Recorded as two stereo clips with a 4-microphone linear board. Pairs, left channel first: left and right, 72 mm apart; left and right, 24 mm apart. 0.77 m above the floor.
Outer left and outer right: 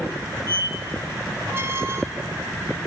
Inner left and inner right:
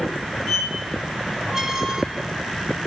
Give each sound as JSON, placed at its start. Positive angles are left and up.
{"t": 0.5, "sound": "a squeak", "side_deg": -35, "distance_m": 0.9}